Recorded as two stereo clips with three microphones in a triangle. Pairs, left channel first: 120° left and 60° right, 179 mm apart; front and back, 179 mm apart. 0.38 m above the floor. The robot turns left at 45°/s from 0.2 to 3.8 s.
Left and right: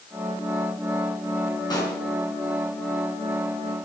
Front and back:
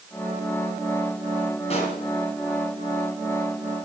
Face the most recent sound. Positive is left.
turn(degrees=-40)